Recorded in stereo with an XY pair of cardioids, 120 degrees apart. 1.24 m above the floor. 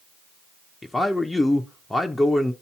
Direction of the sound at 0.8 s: 10° left.